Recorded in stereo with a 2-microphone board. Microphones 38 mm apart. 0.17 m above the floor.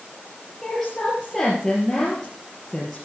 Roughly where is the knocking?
I don't hear knocking.